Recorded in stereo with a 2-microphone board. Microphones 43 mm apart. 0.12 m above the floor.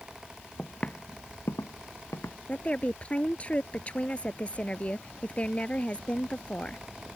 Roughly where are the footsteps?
Centre.